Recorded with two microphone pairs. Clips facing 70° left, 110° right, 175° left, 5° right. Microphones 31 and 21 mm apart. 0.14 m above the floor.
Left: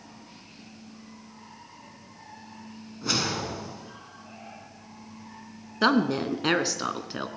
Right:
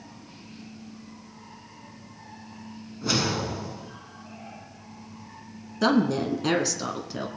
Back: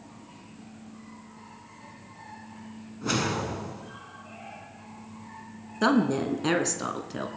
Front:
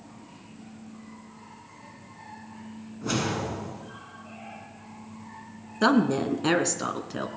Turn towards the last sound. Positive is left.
turn(degrees=60)